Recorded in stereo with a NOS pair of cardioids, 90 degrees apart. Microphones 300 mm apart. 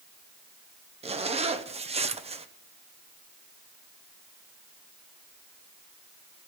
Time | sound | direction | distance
1.0 | a zipper | 20° right | 1.1 m